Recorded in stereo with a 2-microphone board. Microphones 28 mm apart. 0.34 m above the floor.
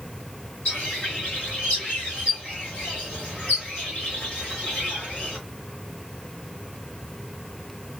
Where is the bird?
50° left (ahead or behind), 2.5 m.